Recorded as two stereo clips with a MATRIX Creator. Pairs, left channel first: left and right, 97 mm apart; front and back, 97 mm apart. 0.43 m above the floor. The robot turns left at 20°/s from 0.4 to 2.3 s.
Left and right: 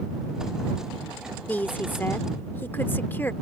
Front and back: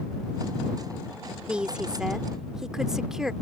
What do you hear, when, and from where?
1.5 s a woman speaking: 125° left; by 3.3 s 110° left